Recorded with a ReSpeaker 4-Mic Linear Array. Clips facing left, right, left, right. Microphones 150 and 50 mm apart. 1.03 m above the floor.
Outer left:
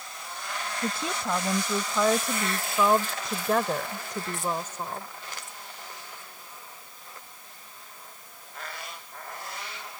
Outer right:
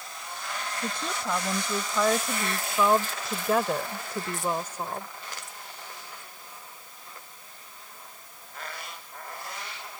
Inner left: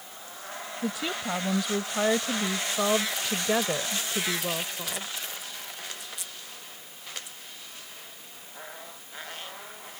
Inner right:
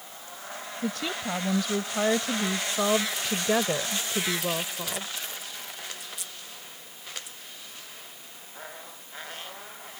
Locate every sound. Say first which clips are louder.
0.8 s a woman speaking: outer left 2 dB, even; 10° left (ahead or behind); by 5.1 s 15° right (ahead or behind)